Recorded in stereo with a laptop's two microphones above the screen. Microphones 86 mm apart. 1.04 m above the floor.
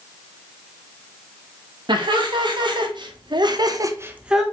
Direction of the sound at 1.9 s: 60° right (ahead or behind).